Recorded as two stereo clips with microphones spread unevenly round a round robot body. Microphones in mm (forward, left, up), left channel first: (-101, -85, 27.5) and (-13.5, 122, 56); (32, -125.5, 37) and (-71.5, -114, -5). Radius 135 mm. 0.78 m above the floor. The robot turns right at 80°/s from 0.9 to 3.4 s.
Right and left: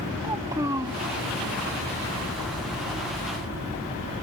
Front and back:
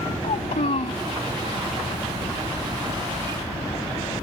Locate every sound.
0.2 s a child speaking: 10° right; by 1.0 s straight ahead